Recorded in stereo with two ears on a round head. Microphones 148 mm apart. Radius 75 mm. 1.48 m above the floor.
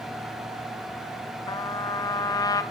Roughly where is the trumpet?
Left.